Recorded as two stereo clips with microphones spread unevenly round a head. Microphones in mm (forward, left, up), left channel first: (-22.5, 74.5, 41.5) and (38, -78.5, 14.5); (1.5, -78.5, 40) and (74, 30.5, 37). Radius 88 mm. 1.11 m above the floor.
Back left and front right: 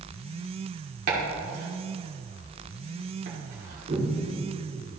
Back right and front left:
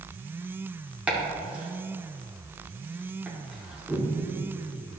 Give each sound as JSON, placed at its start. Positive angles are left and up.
{"t": 1.1, "sound": "chopping", "azimuth_deg": -25, "distance_m": 2.5}